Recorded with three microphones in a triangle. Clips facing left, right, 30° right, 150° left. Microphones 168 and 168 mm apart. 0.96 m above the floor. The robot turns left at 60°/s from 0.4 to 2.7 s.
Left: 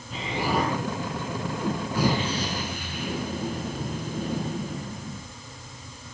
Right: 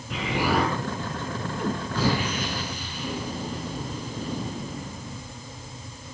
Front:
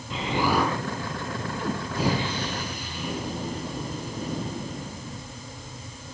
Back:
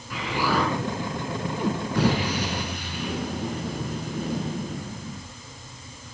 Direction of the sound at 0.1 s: 95° right.